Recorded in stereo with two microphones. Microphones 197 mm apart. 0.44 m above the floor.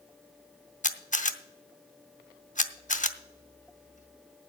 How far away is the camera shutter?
About 0.7 m.